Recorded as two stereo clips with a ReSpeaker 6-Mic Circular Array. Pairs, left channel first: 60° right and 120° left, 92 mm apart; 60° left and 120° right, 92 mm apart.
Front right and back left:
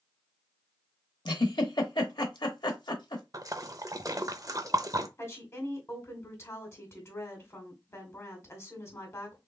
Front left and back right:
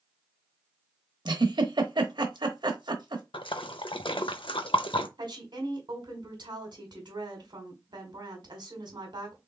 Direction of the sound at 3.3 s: 75° left.